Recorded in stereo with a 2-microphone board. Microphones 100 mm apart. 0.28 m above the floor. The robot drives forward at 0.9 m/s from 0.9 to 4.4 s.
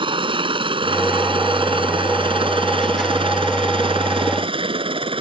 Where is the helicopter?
65° right (ahead or behind); by 5.2 s 70° right (ahead or behind).